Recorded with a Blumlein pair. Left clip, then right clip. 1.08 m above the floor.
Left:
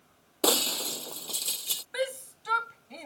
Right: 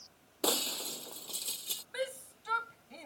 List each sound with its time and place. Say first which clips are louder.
0.4 s breaking glass: left 7 dB; 20° left
1.9 s a shout: left 5 dB; 20° left